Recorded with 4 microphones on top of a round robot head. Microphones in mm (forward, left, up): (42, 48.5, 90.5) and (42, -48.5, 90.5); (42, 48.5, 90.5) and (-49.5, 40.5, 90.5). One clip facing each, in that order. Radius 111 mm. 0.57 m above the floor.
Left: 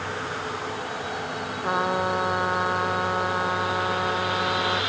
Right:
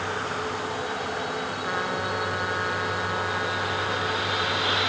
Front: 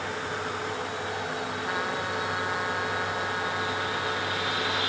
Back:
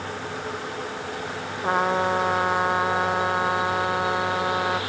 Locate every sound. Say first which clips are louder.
1.6 s a trumpet: left 7 dB, back 12 dB; 145° left